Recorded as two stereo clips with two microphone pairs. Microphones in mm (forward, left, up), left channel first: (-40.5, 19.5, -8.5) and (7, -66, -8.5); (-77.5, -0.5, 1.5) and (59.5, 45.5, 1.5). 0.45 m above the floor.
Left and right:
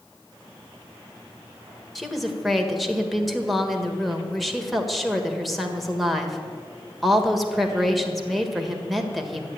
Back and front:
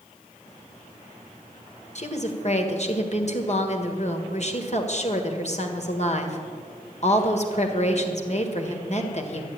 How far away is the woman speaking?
About 1.6 m.